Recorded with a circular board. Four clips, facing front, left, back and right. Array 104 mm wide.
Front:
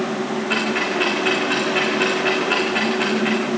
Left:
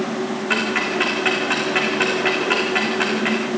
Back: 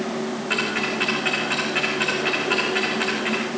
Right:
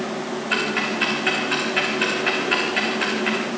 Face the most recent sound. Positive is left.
turn(degrees=90)